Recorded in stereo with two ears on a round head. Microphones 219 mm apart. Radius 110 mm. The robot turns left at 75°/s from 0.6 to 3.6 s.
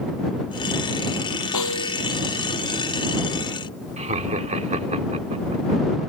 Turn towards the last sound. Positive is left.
turn(degrees=-30)  # may be behind; listen again after turning